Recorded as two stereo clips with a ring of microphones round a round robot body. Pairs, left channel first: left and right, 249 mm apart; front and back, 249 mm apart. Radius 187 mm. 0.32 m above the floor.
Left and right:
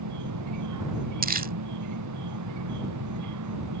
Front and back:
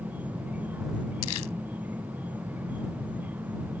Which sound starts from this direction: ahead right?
Crumpling, at 1.2 s.